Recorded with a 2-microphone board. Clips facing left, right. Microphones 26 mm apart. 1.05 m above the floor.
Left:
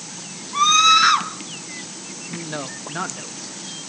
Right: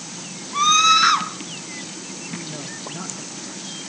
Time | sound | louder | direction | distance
0.5 | a scream | left 1 dB | 5° left (ahead or behind) | 1.3 m
2.3 | a man speaking | left 5 dB | 60° left (ahead or behind) | 0.9 m